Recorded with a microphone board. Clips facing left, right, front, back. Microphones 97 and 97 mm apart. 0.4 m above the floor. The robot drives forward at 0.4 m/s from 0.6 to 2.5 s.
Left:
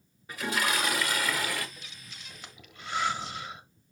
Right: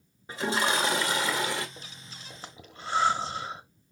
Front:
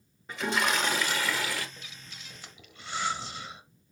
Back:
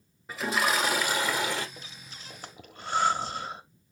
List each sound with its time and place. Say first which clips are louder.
0.3 s a toilet flushing: right 3 dB, back 1 dB; 100° right, 1.3 m; by 1.7 s 135° right, 1.4 m
1.8 s breathing: right 3 dB, back 2 dB; 130° right, 1.0 m; by 3.6 s 140° right, 1.2 m